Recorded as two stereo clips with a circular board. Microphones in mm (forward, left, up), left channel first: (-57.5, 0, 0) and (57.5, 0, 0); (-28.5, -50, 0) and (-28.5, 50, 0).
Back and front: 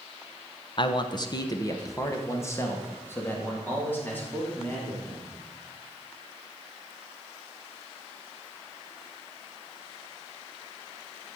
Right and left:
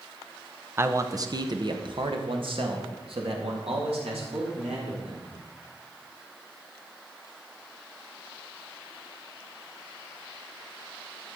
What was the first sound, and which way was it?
A man speaking, 150° left.